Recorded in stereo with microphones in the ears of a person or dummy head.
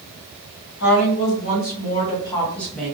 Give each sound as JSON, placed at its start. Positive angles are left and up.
{"t": 0.8, "sound": "a woman speaking", "side_deg": 70, "distance_m": 1.2}